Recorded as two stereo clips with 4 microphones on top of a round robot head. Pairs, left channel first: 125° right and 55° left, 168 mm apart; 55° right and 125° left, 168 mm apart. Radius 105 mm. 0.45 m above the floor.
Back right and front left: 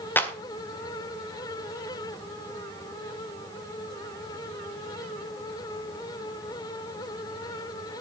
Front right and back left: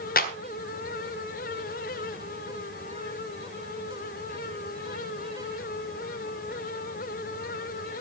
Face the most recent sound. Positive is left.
turn(degrees=-45)